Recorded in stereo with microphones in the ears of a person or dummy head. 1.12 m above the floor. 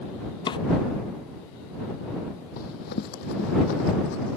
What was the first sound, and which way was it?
A drawer, 20° left (ahead or behind).